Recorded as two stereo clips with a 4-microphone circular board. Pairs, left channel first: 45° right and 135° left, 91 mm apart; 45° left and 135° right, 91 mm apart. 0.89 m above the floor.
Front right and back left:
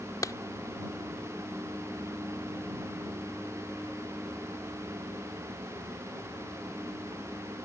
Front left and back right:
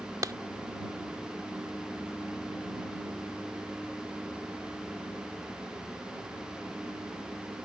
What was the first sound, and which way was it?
A clap, 90° right.